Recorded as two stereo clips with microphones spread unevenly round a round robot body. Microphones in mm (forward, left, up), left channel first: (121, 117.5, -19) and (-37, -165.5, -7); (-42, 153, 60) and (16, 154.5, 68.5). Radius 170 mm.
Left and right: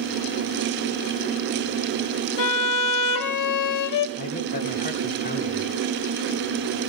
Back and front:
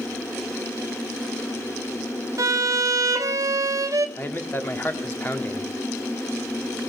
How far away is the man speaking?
About 1.9 m.